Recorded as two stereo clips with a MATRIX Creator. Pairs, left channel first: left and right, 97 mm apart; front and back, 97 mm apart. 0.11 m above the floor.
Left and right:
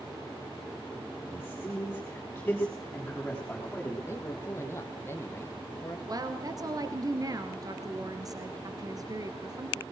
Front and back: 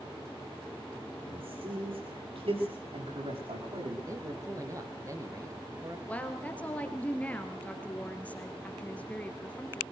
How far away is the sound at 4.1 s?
About 2 m.